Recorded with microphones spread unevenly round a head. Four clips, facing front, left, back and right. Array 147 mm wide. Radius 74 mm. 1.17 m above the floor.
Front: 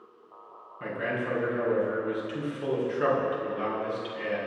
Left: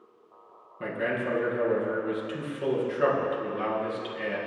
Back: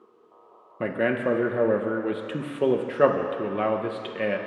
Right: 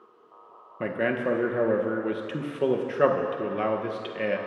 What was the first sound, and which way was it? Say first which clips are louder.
A man speaking: right 3 dB, back 7 dB; 150° right.